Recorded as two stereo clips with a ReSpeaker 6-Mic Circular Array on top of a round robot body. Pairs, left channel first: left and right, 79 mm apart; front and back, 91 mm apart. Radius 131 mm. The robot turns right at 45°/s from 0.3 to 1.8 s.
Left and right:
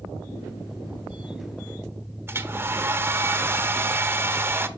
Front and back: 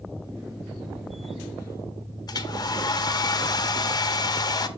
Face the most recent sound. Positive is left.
turn(degrees=-35)